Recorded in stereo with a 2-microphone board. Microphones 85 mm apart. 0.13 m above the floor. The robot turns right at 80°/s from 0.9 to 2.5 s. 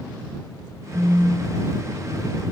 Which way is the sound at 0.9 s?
15° right (ahead or behind).